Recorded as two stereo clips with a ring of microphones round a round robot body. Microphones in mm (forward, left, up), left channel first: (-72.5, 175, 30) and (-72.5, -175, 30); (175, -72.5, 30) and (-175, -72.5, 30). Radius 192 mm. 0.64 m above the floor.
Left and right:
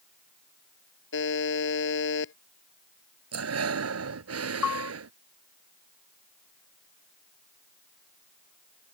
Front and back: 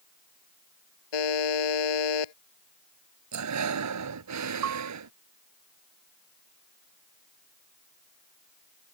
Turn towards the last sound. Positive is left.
turn(degrees=125)